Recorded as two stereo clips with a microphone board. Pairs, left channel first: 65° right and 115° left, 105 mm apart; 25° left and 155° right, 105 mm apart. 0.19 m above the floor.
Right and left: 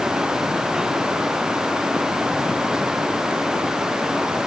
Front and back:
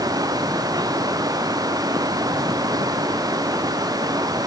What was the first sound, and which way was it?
Only background noise.